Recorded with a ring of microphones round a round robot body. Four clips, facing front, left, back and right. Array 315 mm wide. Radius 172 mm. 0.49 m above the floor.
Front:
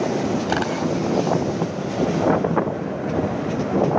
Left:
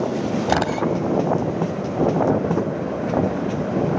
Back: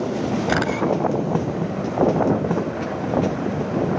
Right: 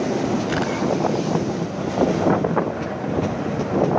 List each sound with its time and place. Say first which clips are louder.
0.5 s a camera shutter: left 2 dB, back 1 dB; 115° left, 2.5 m